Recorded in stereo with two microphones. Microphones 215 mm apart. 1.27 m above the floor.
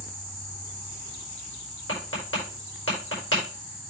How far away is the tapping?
About 5.5 m.